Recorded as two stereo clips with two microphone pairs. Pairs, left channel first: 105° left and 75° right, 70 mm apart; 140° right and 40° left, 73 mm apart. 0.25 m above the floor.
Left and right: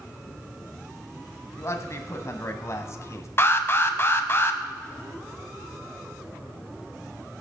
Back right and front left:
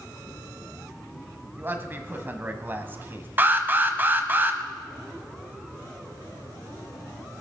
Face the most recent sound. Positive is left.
turn(degrees=85)